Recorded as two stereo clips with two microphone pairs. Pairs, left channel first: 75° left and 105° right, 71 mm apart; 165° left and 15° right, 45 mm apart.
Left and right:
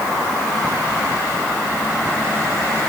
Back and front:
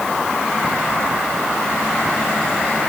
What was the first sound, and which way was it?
Only background noise.